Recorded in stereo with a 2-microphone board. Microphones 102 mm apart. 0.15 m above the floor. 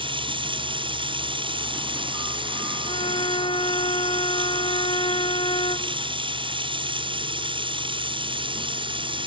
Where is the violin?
60° left (ahead or behind).